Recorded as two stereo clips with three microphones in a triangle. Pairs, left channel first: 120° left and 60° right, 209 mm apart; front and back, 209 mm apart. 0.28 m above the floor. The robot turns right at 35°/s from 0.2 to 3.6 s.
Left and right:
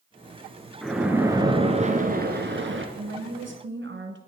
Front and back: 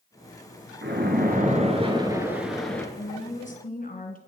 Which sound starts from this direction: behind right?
A splash, at 0.8 s.